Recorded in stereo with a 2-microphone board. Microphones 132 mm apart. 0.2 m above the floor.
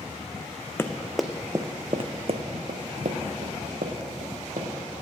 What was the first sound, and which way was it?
Running footsteps, 15° left (ahead or behind).